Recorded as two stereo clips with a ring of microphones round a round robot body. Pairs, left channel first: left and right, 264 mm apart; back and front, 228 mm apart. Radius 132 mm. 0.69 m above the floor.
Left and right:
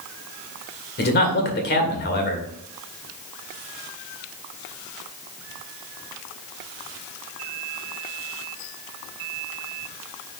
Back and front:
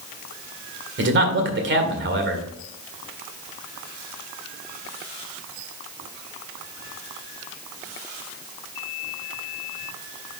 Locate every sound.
1.0 s a man speaking: 35° left, 2 m